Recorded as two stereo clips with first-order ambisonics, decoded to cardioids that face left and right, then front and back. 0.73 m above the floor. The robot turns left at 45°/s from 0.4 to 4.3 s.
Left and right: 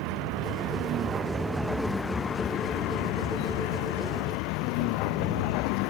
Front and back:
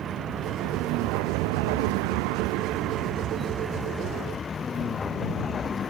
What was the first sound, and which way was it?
A vehicle, 115° right.